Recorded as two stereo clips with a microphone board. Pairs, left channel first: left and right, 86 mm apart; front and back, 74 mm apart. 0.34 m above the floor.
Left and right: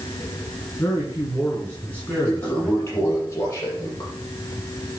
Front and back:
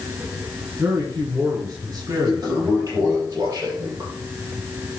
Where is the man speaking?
150° left, 4.5 m; by 3.2 s 170° left, 4 m.